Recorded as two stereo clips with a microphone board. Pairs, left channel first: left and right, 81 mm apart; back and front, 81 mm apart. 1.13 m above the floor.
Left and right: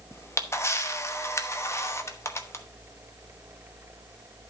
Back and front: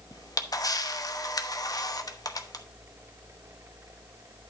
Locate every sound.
0.1 s a camera shutter: 145° left, 0.9 m